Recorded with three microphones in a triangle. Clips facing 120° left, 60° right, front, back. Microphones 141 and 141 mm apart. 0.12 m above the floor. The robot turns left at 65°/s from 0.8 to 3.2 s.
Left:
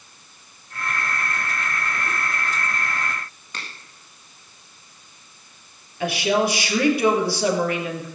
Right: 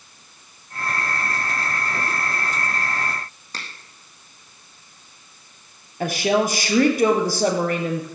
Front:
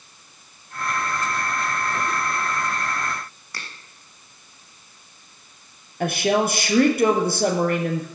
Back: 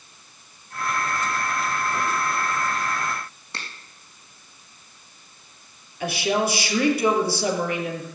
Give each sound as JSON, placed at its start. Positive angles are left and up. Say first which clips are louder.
{"t": 3.5, "sound": "a finger snap", "louder": "even, back 1 dB", "azimuth_deg": -115, "distance_m": 4.0}
{"t": 6.0, "sound": "a woman speaking", "louder": "right 1 dB, front 3 dB", "azimuth_deg": -25, "distance_m": 3.0}